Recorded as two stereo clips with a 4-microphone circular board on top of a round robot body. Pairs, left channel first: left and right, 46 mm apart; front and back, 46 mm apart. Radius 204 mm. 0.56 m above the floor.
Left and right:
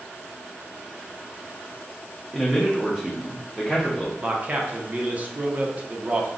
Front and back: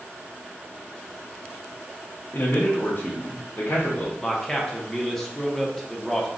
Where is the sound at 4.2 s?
80° right, 0.9 m.